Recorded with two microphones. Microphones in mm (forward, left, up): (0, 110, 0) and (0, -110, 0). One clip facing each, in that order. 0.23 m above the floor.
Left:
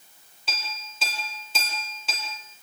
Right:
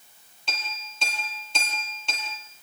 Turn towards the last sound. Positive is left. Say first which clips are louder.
# even
turn(degrees=5)  # may be behind; listen again after turning